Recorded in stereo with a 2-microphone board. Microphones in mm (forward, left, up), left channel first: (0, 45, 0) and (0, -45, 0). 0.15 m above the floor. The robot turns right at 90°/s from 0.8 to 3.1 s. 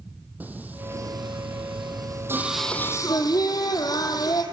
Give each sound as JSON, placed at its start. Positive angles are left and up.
{"t": 0.4, "sound": "singing", "azimuth_deg": -160, "distance_m": 2.0}